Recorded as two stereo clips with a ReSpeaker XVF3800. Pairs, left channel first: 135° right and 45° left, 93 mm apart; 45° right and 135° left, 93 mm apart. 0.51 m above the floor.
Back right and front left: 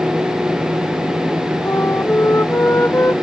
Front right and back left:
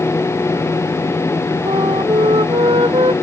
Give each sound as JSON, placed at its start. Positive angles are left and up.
{"t": 1.6, "sound": "a flute", "azimuth_deg": 160}